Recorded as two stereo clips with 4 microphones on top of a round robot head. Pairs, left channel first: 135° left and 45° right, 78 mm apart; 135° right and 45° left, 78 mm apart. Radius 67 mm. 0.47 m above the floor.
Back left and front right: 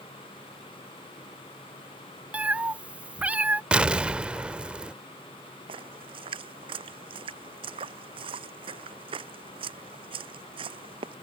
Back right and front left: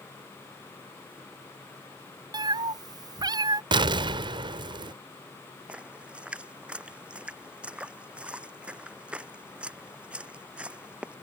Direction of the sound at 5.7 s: 35° right.